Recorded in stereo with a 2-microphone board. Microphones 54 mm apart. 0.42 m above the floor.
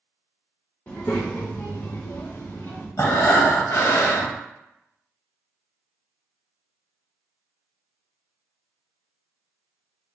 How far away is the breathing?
About 0.8 m.